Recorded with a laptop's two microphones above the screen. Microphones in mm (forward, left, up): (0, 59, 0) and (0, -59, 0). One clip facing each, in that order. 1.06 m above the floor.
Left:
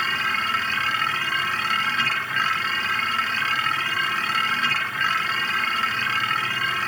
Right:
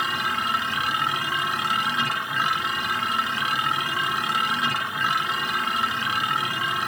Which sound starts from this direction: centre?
A machine running, at 0.0 s.